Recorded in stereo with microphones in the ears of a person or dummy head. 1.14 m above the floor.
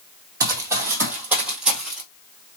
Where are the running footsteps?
20° right (ahead or behind), 2 m; by 2.0 s centre (ahead or behind), 1.6 m.